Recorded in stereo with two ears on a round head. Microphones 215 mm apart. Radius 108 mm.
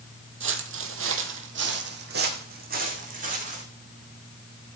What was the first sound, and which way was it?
Footsteps, 55° right (ahead or behind).